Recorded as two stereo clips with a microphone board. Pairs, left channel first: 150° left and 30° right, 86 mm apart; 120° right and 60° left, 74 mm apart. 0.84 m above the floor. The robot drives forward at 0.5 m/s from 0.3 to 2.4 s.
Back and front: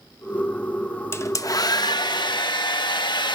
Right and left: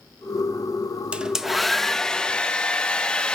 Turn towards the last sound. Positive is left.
turn(degrees=165)